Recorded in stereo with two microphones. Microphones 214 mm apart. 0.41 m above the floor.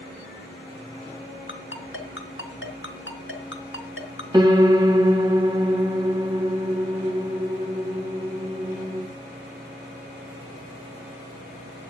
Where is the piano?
20° right (ahead or behind), 1.2 m.